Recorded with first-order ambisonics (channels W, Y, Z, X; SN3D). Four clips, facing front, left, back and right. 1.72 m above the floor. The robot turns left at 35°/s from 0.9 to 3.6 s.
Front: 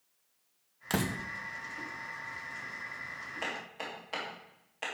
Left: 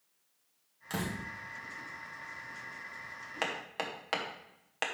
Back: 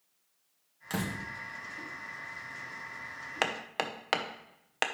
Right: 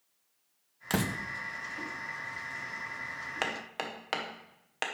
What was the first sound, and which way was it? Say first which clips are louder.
A door slam: right 5 dB, front 2 dB; 60° right.